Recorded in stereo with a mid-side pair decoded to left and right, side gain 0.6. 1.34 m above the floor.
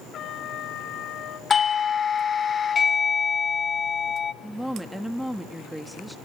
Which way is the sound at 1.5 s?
30° left.